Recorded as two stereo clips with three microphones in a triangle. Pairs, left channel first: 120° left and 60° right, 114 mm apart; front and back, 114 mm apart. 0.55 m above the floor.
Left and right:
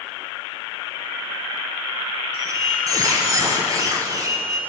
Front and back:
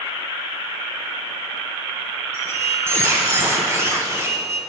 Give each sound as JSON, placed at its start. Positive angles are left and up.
{"t": 2.3, "sound": "a squeak", "azimuth_deg": -115, "distance_m": 1.2}